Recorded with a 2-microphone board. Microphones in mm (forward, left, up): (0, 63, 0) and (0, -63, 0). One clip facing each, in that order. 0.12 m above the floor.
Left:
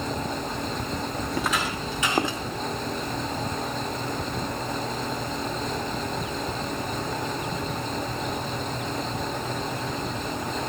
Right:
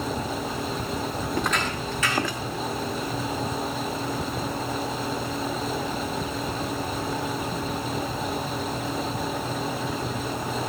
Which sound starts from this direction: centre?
Footsteps, at 1.3 s.